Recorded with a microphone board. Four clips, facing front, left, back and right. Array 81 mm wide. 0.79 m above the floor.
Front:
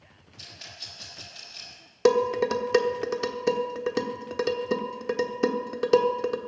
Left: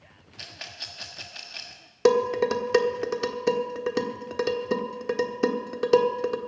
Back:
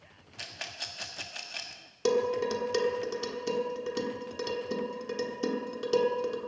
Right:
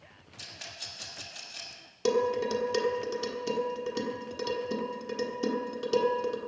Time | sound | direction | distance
0.4 | a rattle | 155° left | 1.5 m
2.0 | dishes clattering | 45° left | 1.2 m